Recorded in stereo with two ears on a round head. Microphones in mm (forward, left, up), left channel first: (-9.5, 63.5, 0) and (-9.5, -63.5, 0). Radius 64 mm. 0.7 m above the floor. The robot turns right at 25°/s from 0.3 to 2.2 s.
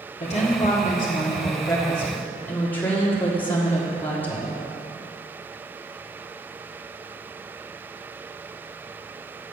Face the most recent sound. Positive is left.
turn(degrees=165)